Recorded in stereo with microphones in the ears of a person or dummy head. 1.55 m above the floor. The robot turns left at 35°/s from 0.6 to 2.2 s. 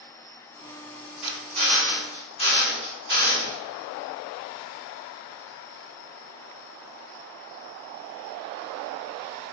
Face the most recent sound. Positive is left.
turn(degrees=150)